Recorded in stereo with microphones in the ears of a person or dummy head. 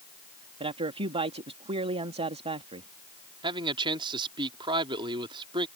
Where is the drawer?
No drawer in this recording.